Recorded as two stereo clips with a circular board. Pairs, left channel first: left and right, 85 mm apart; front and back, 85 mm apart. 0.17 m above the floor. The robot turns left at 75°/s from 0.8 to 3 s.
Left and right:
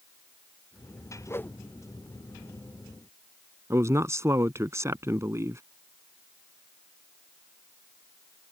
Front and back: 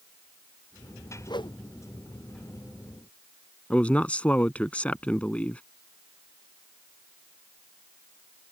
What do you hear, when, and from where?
1.3 s a whoosh: 35° left; by 1.6 s 10° left
3.7 s a man speaking: 65° right